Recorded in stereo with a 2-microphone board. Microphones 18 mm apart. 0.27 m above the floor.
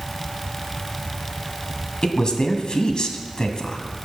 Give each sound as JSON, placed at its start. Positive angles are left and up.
{"t": 2.0, "sound": "a woman speaking", "side_deg": 55, "distance_m": 1.7}